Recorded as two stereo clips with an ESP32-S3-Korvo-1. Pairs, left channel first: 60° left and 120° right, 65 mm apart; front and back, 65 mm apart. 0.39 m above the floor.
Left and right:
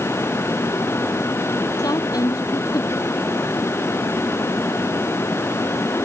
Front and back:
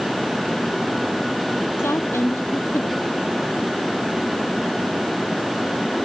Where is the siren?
No siren in this recording.